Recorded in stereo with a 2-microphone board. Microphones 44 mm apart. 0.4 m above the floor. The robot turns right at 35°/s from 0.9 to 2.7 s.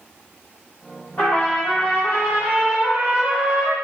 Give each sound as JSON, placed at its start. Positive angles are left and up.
{"t": 1.2, "sound": "a trumpet", "azimuth_deg": 60, "distance_m": 1.5}